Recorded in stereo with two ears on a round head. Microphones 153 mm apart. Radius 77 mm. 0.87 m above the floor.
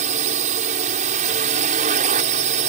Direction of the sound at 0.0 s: 50° right (ahead or behind).